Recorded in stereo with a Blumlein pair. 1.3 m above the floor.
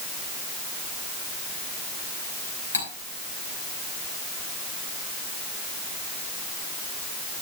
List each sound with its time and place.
2.7 s cutlery clinking: 70° left, 4 m